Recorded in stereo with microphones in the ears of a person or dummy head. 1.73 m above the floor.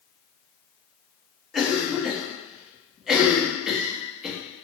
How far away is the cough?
About 0.8 m.